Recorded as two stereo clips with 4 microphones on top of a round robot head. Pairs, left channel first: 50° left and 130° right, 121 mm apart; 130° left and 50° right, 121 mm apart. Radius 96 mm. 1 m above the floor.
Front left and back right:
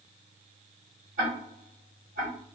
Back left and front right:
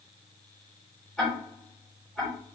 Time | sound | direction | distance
1.2 | ticking | 145° right | 1.8 m